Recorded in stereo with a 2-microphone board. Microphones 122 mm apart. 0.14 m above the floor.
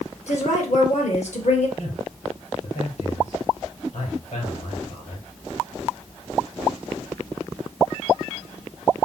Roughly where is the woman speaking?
Left.